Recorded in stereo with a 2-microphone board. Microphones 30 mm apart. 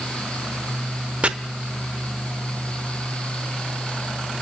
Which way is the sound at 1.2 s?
40° right (ahead or behind).